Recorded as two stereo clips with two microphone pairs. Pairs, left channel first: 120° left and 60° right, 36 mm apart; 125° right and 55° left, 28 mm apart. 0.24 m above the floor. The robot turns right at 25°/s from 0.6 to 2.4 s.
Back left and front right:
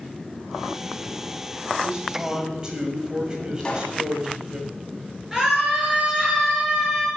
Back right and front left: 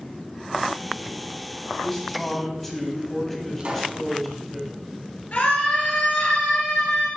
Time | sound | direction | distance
1.8 | a man speaking | 70° right | 1.7 m
3.6 | a pop | 60° left | 1.7 m
5.3 | a scream | 140° right | 4 m